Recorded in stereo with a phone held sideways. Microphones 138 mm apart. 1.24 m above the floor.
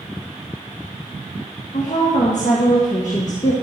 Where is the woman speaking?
65° left (ahead or behind), 1.6 m.